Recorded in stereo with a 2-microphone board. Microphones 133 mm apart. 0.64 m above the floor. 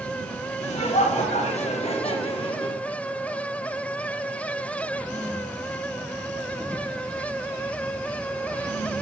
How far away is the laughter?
About 1.3 m.